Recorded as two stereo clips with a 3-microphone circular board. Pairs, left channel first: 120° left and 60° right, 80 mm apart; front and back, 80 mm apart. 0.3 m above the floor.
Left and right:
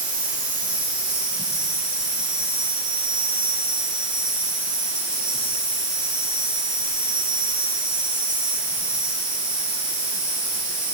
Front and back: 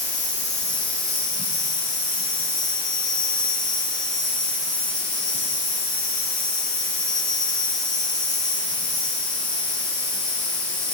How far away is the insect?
About 9.5 m.